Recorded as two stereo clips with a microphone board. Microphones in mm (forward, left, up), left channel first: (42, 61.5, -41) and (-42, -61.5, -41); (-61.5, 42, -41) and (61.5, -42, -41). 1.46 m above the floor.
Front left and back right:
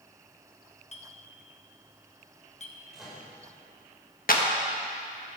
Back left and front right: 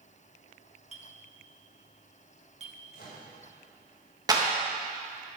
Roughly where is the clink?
Ahead.